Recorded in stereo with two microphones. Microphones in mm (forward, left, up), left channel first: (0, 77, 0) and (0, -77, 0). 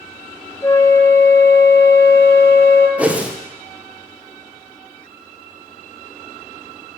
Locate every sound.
0.6 s a flute: 20° left (ahead or behind), 0.7 m
3.0 s a whoosh: 10° right (ahead or behind), 0.6 m